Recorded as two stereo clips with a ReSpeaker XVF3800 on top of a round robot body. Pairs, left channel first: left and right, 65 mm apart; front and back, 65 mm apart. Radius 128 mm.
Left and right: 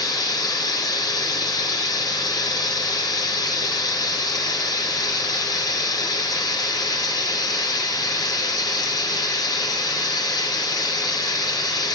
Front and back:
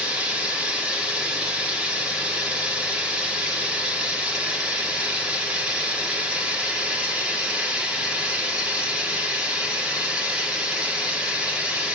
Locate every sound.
0.0 s running water: 105° left, 1.5 m